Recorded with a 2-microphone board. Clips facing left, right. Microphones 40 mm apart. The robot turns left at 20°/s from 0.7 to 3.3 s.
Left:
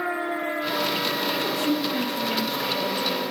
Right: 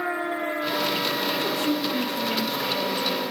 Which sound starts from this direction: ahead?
A woman speaking, at 1.3 s.